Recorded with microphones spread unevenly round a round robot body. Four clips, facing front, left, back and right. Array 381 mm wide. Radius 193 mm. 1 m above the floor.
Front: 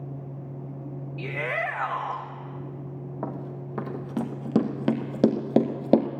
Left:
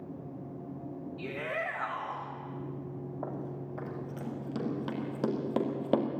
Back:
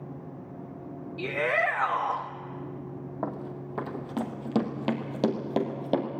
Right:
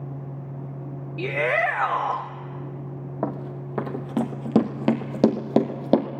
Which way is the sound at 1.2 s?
100° right.